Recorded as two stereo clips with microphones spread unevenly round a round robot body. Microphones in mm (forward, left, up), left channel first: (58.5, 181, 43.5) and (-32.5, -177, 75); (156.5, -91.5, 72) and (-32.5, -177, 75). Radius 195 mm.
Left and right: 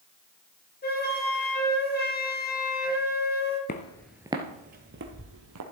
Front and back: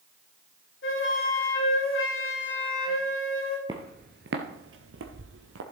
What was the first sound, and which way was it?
A flute, 15° left.